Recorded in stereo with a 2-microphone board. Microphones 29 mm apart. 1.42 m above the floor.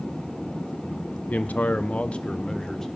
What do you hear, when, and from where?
1.3 s a man speaking: 65° left (ahead or behind), 1.1 m; by 2.9 s 15° left (ahead or behind), 1.7 m